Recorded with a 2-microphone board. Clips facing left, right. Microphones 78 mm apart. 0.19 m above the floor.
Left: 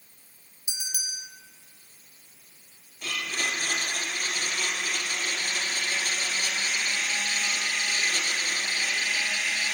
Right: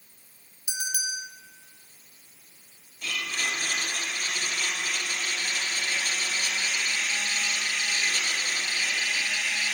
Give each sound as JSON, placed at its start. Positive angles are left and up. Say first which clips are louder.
{"t": 0.7, "sound": "a bell", "louder": "right 7 dB", "side_deg": -60, "distance_m": 0.8}
{"t": 3.0, "sound": "a blender", "louder": "even", "side_deg": 40, "distance_m": 2.5}